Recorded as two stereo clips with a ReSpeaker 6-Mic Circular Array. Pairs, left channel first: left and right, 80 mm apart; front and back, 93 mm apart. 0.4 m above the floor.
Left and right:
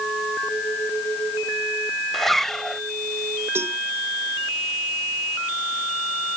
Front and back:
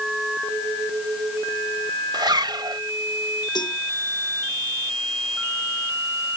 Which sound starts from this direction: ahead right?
A cowbell, at 3.5 s.